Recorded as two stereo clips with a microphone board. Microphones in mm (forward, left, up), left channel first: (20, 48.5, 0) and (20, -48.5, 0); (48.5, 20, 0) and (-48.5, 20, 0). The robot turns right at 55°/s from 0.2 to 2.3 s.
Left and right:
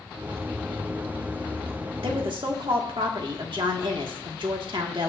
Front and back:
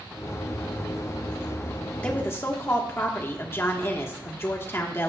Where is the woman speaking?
80° right, 1.6 m; by 5.1 s 65° right, 1.6 m.